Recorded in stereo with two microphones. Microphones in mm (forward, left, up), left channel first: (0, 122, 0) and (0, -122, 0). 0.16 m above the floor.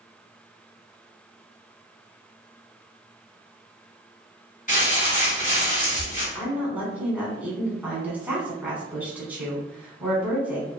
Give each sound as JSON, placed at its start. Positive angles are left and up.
{"t": 4.7, "sound": "crumpling", "side_deg": 35, "distance_m": 1.9}
{"t": 6.3, "sound": "a woman speaking", "side_deg": -5, "distance_m": 1.1}